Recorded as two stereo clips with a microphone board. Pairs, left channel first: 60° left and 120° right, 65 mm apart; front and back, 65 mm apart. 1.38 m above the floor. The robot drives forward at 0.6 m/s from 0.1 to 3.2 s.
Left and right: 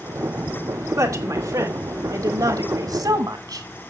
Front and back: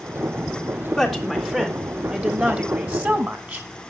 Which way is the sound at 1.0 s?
90° right.